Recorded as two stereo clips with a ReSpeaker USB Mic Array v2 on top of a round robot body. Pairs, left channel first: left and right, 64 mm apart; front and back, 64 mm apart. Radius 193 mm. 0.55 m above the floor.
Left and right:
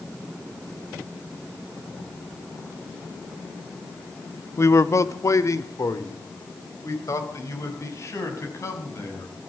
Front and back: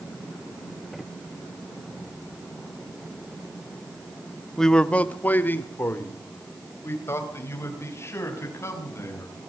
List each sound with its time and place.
4.6 s a man speaking: 80° left, 1.2 m; by 9.3 s 45° left, 7.5 m